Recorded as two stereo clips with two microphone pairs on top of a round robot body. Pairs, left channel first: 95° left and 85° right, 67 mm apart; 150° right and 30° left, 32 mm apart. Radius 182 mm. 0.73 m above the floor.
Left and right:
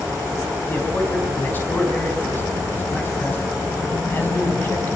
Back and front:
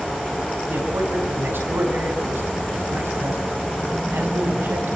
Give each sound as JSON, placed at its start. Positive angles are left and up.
{"t": 0.7, "sound": "a man speaking", "azimuth_deg": 30, "distance_m": 6.5}